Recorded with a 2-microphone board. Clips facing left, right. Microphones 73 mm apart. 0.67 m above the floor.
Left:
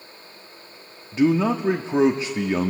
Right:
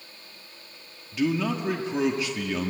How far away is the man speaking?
About 1.1 m.